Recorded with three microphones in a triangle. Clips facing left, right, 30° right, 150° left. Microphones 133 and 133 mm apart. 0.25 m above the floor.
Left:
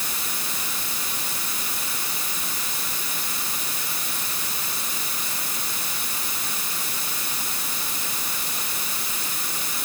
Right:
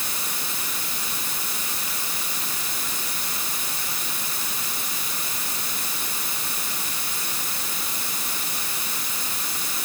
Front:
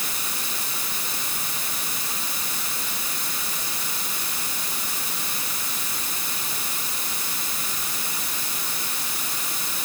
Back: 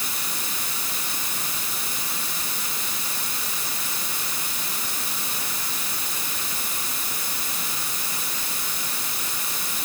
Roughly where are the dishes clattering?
I don't hear dishes clattering.